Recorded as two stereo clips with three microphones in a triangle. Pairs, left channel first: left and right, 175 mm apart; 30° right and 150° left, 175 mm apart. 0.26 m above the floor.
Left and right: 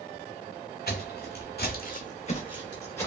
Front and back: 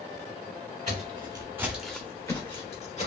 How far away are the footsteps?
About 0.8 m.